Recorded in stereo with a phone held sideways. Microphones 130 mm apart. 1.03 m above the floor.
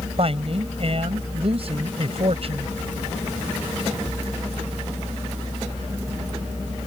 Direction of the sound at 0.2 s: 50° right (ahead or behind).